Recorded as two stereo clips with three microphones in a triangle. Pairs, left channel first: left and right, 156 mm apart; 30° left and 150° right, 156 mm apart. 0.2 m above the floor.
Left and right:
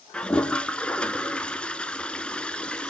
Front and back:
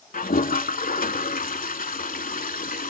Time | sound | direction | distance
0.1 | a toilet flushing | 10° left | 0.7 m